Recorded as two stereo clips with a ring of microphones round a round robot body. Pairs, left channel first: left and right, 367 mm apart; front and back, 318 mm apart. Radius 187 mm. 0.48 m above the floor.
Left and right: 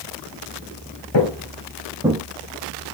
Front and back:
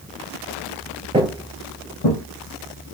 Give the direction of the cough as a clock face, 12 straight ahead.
No cough in this recording.